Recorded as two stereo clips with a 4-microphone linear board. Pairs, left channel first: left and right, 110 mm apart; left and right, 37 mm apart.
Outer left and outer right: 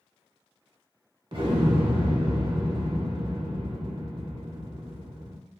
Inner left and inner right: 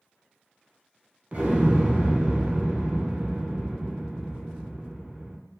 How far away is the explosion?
About 1.0 m.